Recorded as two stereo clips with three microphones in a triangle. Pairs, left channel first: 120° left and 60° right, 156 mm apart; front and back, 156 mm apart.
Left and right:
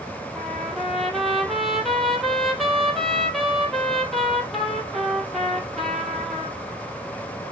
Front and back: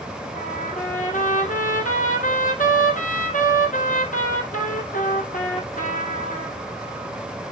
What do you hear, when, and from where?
0.3 s a trumpet: 30° left, 2.0 m